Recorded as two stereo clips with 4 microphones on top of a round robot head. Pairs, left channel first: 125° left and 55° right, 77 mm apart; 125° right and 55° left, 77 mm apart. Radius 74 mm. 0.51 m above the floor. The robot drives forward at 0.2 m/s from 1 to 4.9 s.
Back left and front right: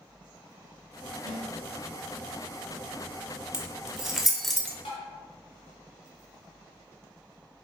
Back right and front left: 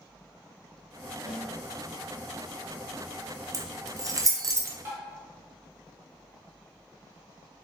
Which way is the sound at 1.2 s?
30° right.